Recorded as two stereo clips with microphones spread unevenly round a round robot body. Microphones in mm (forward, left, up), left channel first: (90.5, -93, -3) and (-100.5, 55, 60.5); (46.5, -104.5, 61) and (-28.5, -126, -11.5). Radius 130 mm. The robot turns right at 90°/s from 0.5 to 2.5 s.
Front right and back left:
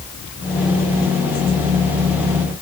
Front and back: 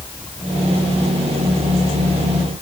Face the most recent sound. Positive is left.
No sound to turn to.